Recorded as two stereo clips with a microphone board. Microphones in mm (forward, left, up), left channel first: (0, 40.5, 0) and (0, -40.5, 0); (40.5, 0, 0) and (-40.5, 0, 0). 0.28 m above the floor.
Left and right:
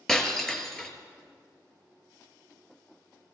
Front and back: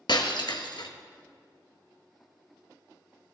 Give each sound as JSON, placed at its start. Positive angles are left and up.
{"t": 0.1, "sound": "breaking glass", "azimuth_deg": 5, "distance_m": 1.2}